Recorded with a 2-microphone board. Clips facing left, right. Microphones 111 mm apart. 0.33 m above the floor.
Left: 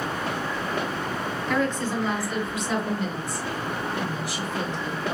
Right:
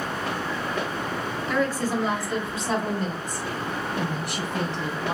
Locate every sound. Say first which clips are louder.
1.5 s a woman speaking: right 1 dB; 5° right (ahead or behind), 1.3 m; by 5.2 s 60° right (ahead or behind), 2.5 m